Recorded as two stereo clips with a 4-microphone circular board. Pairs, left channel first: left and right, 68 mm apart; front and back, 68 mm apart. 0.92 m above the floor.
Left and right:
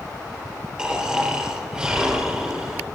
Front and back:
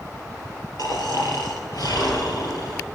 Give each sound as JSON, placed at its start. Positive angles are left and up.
{"t": 0.8, "sound": "snoring", "azimuth_deg": -10, "distance_m": 3.5}